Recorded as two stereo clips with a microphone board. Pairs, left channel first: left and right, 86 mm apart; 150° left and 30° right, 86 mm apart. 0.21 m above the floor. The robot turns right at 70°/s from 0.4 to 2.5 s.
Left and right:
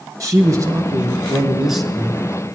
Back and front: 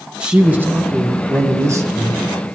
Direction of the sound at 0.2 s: 100° right.